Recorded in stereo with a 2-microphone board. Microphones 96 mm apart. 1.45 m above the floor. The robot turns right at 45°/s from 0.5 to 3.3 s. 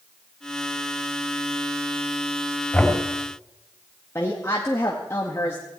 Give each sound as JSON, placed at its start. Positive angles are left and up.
{"t": 2.7, "sound": "knocking", "side_deg": 10, "distance_m": 4.0}
{"t": 4.2, "sound": "a woman speaking", "side_deg": 30, "distance_m": 1.9}